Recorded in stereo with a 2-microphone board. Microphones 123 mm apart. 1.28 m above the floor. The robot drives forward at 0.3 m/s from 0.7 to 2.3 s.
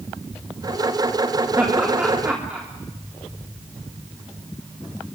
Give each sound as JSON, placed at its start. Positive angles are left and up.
{"t": 1.6, "sound": "laughter", "side_deg": -10, "distance_m": 3.0}